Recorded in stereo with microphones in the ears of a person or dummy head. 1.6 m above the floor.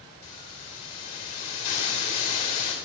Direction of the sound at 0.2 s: 30° left (ahead or behind).